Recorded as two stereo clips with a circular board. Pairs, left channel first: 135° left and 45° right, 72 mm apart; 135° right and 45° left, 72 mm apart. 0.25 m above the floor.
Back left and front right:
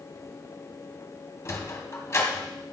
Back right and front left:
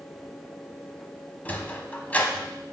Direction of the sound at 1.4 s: 165° left.